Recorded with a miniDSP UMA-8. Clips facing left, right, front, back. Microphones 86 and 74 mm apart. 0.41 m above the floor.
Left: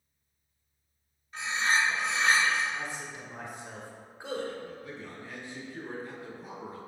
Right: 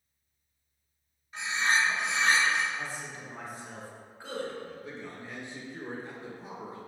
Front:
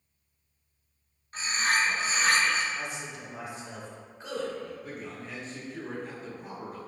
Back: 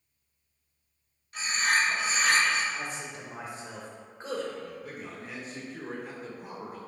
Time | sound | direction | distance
1.3 | a bird | 15° right | 1.8 m
2.7 | a man speaking | 150° left | 1.1 m
4.6 | a man speaking | 100° right | 0.8 m